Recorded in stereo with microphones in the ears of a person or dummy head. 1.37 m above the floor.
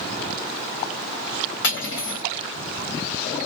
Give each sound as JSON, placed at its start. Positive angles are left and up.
{"t": 1.6, "sound": "cutlery clinking", "side_deg": 70, "distance_m": 1.4}